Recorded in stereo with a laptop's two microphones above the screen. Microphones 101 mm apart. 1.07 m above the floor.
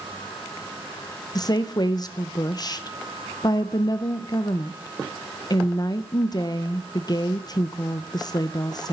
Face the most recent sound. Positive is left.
turn(degrees=40)  # may be behind; listen again after turning